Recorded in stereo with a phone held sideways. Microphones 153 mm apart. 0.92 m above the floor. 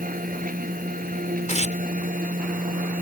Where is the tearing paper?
50° left (ahead or behind).